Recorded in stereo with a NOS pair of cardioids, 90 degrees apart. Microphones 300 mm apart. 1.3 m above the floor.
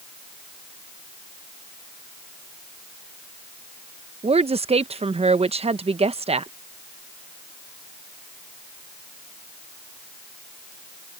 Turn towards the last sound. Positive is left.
turn(degrees=-20)